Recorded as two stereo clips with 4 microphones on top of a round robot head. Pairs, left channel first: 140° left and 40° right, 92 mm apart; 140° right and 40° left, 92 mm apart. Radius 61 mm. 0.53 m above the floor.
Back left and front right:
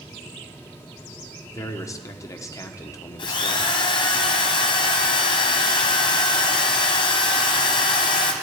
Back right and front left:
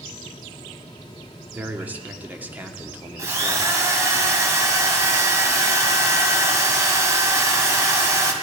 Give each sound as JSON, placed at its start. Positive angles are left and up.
{"t": 1.5, "sound": "a man speaking", "azimuth_deg": 105, "distance_m": 1.2}
{"t": 3.2, "sound": "a drill", "azimuth_deg": 100, "distance_m": 1.7}